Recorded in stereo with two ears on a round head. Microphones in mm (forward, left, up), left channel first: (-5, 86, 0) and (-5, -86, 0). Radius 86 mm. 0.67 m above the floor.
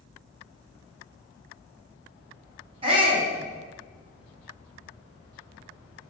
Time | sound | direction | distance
2.8 | a shout | 30° right (ahead or behind) | 4.5 m